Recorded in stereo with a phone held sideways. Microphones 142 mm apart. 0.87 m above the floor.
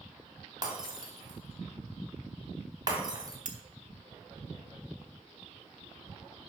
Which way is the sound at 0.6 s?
30° right (ahead or behind).